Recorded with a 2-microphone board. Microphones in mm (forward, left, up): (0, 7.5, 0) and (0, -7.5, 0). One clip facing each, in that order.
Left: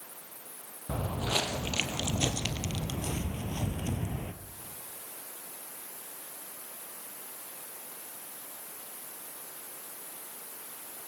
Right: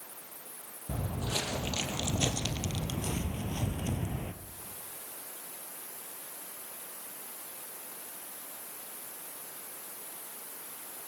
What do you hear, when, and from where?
0.9 s footsteps: 55° left (ahead or behind), 3.5 m; by 4.3 s 10° left (ahead or behind), 2.5 m